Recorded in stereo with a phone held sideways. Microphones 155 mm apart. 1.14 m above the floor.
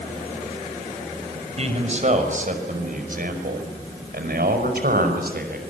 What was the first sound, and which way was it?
A man speaking, 45° right (ahead or behind).